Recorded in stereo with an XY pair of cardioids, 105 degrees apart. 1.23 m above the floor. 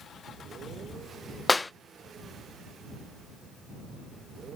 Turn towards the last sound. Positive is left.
turn(degrees=20)